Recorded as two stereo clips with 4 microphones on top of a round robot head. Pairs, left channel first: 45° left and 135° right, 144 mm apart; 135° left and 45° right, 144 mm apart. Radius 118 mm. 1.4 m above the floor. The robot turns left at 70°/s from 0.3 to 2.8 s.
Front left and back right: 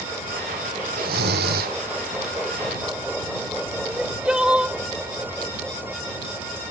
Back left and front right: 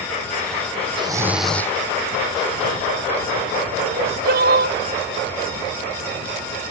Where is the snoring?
105° right; by 1.8 s 155° right.